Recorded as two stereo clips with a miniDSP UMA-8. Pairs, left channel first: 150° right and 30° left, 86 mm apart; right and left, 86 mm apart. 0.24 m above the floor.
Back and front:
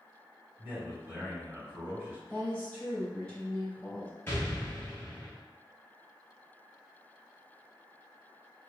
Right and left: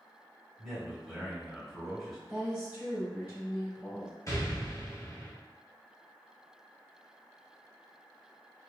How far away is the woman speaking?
About 1.5 m.